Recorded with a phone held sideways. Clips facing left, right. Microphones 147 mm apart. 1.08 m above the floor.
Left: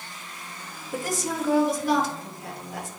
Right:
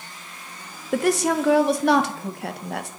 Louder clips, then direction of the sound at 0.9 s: Right 9 dB; 70° right (ahead or behind).